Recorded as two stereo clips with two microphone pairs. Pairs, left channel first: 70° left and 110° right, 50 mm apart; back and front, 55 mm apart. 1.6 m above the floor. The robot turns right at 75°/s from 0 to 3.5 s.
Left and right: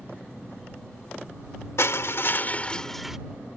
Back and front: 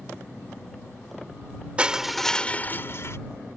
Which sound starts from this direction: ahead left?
Crushing, at 1.8 s.